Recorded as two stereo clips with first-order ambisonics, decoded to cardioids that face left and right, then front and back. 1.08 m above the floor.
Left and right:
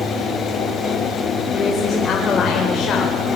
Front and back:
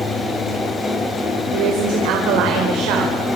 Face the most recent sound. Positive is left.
turn(degrees=150)